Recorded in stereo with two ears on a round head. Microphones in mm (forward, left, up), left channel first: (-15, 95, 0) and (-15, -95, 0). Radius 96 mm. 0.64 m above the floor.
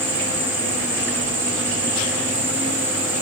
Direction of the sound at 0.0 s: 10° right (ahead or behind).